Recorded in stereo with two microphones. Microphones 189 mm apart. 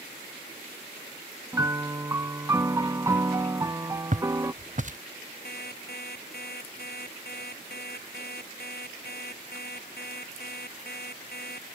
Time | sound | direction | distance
1.5 | a piano | 20° right (ahead or behind) | ?
4.1 | footsteps | 45° right (ahead or behind) | ?
5.5 | an alarm clock | 55° left (ahead or behind) | ?